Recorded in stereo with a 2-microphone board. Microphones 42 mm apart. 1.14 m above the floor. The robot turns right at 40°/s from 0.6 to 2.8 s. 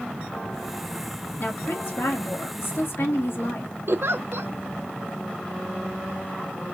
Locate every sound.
1.4 s a woman speaking: 60° left, 2.0 m; by 3.7 s 115° left, 2.0 m
3.9 s a giggle: 65° right (ahead or behind), 0.5 m